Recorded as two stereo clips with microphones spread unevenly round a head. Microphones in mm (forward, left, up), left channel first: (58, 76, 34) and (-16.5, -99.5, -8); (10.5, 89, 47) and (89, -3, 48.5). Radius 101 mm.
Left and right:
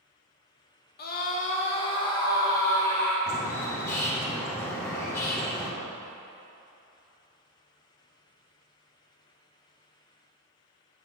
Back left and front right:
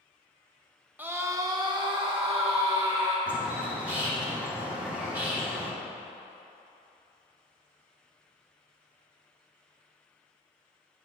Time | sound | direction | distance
1.0 | a scream | 25° left | 1.2 m
3.3 | a bird | 20° left | 1.2 m